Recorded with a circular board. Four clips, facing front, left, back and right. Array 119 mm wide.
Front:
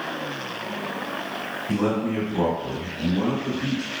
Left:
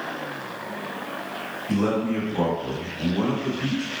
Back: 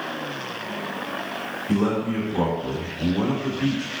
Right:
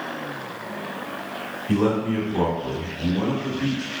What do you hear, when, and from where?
1.7 s a man speaking: 85° right, 1.2 m; by 3.9 s 140° left, 1.2 m